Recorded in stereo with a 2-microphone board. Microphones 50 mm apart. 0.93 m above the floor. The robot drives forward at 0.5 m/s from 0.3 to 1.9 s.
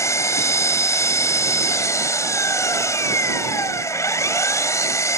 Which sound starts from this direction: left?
An engine running, at 0.0 s.